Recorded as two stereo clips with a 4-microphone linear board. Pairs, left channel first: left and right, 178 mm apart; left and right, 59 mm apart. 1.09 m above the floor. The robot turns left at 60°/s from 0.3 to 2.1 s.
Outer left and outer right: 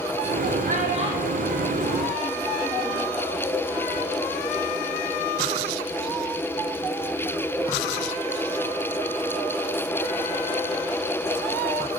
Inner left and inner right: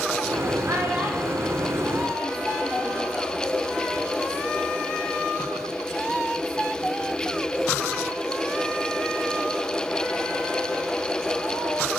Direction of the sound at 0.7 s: 55° right (ahead or behind).